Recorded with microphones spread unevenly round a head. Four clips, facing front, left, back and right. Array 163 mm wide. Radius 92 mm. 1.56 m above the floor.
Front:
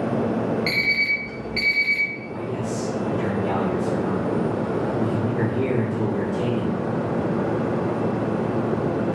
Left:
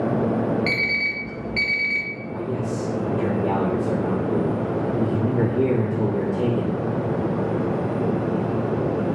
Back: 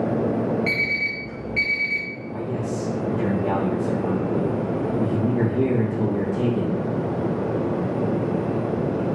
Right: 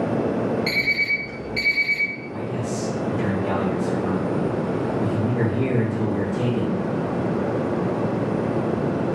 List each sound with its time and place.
0.7 s an alarm clock: 40° left, 1.0 m
2.3 s a man speaking: 160° left, 1.8 m